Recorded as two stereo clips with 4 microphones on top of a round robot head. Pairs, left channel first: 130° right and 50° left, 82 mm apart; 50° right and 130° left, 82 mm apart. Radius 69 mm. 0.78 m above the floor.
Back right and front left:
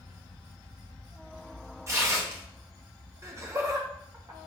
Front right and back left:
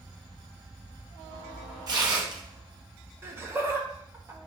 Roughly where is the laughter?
Left.